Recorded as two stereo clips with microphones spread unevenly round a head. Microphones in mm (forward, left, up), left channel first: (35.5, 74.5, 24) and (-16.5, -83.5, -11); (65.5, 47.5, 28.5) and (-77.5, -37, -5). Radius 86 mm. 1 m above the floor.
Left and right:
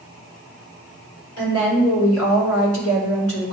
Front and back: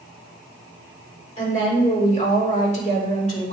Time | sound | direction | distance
1.4 | a woman speaking | 85° left | 4 m